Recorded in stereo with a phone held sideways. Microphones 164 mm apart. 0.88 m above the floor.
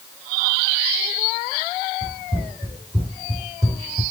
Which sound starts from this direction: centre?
Running footsteps, at 2.0 s.